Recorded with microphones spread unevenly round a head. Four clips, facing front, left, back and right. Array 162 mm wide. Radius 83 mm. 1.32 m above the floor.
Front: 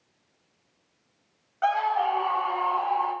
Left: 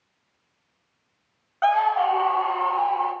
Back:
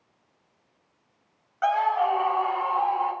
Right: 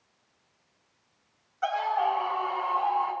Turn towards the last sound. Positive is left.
turn(degrees=80)